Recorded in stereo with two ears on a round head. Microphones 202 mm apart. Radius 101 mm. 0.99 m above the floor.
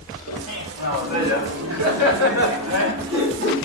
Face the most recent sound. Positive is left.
turn(degrees=-40)  # may be behind; listen again after turning